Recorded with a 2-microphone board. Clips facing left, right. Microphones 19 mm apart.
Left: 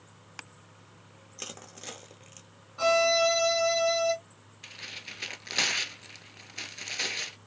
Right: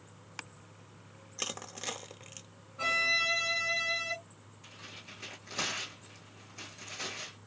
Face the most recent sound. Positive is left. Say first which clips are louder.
# left 8 dB
turn(degrees=65)  # may be behind; listen again after turning